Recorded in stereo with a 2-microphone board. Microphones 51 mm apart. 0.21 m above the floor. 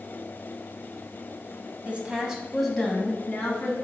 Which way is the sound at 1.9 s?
30° right (ahead or behind).